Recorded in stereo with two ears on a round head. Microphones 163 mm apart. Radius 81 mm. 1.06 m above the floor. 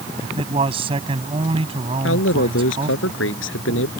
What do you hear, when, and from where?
0.2 s a man speaking: 30° right (ahead or behind)
2.0 s a man speaking: 80° left